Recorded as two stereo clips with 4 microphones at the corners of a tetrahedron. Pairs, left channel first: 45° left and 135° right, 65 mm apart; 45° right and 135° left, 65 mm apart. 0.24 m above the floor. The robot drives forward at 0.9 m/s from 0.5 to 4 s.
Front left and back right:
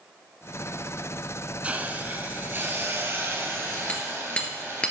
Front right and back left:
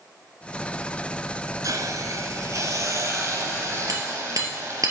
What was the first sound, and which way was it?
A hiss, 155° left.